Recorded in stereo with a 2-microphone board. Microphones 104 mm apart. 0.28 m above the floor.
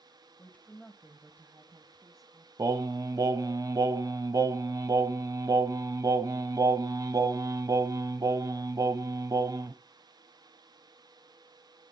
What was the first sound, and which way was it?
A woman speaking, 20° left (ahead or behind).